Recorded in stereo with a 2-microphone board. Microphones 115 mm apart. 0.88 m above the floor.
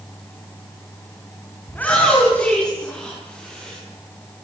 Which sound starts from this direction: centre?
A shout, at 1.7 s.